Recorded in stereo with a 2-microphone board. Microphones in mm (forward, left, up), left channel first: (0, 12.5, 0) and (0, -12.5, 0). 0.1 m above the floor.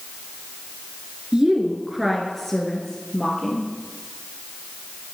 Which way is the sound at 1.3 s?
30° right (ahead or behind).